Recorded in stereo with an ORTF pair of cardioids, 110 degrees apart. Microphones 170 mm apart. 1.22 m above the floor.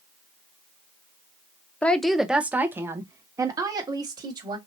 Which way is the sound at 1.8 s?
10° left.